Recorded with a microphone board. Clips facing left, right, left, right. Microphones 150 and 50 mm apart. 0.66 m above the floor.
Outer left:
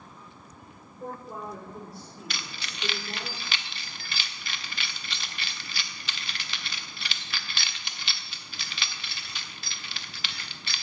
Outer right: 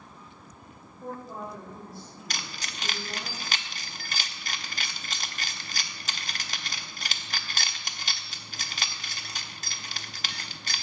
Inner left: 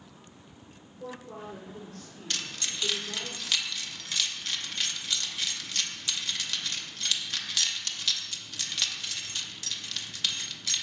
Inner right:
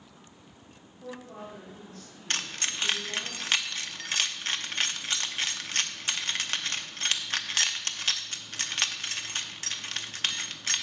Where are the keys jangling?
40° right (ahead or behind), 0.7 m.